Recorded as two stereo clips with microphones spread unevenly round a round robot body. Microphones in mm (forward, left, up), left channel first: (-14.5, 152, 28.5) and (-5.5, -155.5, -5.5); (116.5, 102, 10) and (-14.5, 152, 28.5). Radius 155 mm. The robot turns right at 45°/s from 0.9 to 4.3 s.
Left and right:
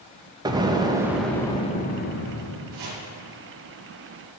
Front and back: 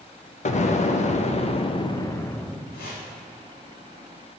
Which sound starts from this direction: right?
Chopping, at 2.7 s.